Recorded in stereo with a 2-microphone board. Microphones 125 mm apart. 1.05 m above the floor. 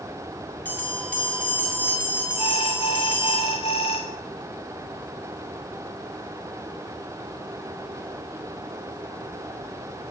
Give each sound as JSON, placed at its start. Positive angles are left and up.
{"t": 0.7, "sound": "a bell", "side_deg": 15, "distance_m": 7.0}
{"t": 2.4, "sound": "an alarm", "side_deg": 65, "distance_m": 3.0}